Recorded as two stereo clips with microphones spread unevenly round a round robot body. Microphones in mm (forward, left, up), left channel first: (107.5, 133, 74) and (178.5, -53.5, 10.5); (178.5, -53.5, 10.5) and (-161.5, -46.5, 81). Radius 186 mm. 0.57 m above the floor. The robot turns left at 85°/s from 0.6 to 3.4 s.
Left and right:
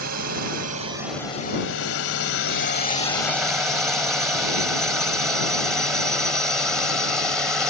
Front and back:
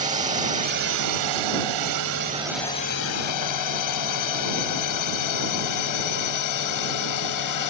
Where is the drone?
110° right; by 7.7 s 15° left.